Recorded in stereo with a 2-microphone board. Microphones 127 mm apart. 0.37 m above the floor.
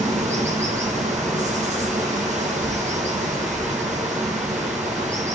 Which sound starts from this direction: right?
Running water, at 0.0 s.